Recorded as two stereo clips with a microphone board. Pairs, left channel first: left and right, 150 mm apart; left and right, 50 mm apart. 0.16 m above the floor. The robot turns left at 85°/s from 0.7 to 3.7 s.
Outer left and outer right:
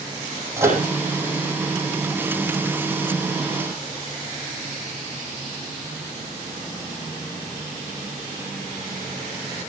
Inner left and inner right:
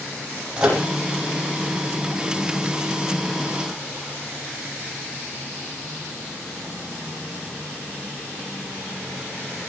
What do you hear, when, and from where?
0.6 s a microwave: 20° right (ahead or behind), 6 m; by 0.8 s 30° right (ahead or behind), 6 m